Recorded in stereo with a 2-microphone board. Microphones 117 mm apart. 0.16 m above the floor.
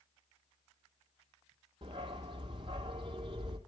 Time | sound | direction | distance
1.8 | a dog barking | 45° right (ahead or behind) | 1.9 m